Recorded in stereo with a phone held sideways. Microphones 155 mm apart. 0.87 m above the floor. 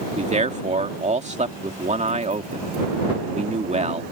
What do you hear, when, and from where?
0.2 s a man speaking: 45° right (ahead or behind)